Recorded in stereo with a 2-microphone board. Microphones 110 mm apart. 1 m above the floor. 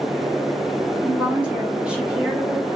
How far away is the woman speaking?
About 1.9 m.